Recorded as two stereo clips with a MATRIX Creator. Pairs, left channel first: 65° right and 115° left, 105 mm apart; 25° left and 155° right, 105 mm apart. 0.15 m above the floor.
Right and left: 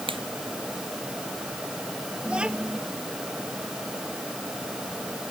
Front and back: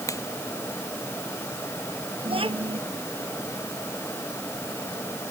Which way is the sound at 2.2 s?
170° right.